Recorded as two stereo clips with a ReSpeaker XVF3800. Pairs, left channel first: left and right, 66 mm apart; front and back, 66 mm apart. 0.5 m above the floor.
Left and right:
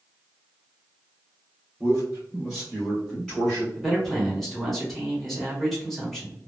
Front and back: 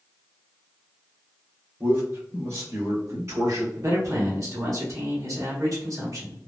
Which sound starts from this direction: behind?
A man speaking, at 3.8 s.